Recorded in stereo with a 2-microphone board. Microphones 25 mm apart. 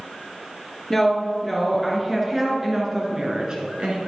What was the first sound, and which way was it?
A woman speaking, 5° left (ahead or behind).